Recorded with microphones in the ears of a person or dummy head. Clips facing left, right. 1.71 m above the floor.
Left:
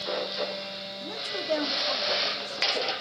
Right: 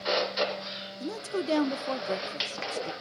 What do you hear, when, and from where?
1.0 s a woman speaking: 55° right (ahead or behind), 1.1 m